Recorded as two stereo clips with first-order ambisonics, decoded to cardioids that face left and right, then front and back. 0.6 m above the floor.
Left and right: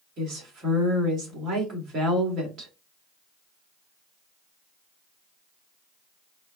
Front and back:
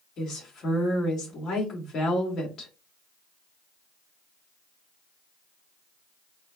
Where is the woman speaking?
45° right, 1.8 m.